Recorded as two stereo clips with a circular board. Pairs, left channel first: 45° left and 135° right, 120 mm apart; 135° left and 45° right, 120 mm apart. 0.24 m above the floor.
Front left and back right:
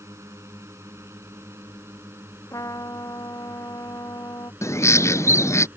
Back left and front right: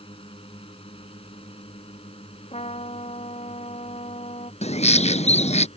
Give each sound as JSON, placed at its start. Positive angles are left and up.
{"t": 0.0, "sound": "a drone", "azimuth_deg": 160}
{"t": 2.5, "sound": "a trumpet", "azimuth_deg": 105}
{"t": 4.6, "sound": "a bird", "azimuth_deg": 110}